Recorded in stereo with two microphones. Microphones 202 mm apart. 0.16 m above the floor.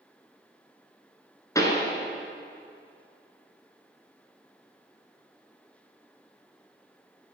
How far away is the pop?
About 1.2 m.